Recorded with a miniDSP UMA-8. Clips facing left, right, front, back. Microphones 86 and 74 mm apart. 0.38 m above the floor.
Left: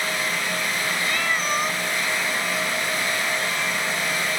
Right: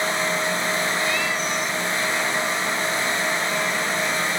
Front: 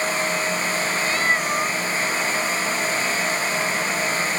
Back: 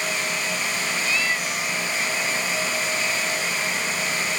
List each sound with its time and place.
1.0 s a cat meowing: 45° left